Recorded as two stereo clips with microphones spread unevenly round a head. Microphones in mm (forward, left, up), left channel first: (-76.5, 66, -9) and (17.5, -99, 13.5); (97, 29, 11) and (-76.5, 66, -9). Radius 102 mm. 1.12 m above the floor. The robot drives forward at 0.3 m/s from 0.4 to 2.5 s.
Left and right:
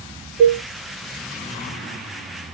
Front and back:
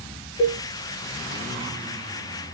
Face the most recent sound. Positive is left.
turn(degrees=65)